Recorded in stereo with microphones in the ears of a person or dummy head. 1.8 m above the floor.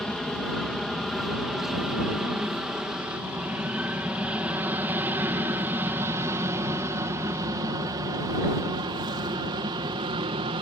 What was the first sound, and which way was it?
An aircraft, centre (ahead or behind).